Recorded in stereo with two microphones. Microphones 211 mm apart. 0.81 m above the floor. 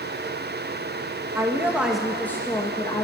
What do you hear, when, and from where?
1.4 s a woman speaking: 15° right (ahead or behind), 1.0 m; by 3.0 s 25° left (ahead or behind), 1.0 m